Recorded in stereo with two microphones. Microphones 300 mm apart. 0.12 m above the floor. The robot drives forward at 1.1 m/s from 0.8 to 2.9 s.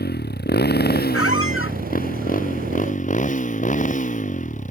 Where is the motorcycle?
30° left (ahead or behind); by 4.7 s 25° left (ahead or behind).